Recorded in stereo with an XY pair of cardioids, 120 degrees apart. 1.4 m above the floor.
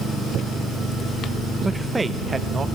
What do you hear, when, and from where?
1.6 s a man speaking: 10° right, 1.2 m; by 2.6 s 30° right, 1.4 m